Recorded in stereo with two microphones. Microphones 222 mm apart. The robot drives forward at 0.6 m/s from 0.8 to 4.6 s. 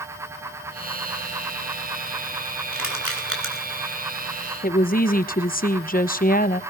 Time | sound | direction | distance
2.7 | crushing | 75° right (ahead or behind) | 4 m
4.6 | a woman speaking | 40° left (ahead or behind) | 1.0 m